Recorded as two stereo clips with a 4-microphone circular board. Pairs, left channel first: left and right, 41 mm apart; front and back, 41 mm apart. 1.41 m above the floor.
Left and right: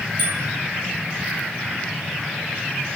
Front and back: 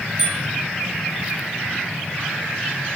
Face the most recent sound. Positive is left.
turn(degrees=100)